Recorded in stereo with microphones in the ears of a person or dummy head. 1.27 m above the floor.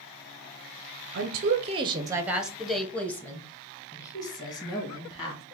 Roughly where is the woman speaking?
Right.